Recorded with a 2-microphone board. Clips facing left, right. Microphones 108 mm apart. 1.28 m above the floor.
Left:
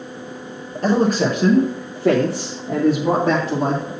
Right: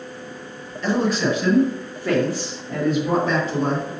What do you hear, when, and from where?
0.8 s a man speaking: 45° left (ahead or behind), 1.3 m; by 3.9 s 80° left, 1.8 m